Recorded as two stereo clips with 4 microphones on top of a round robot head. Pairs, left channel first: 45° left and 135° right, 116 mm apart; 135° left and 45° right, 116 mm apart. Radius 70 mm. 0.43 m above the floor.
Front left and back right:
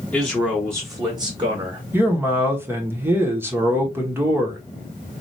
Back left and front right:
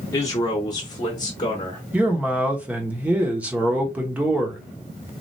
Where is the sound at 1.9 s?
100° right, 1.1 m.